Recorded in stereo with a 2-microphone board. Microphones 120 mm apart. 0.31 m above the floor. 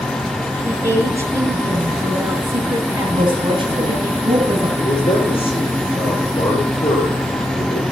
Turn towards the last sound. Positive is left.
turn(degrees=50)  # may be behind; listen again after turning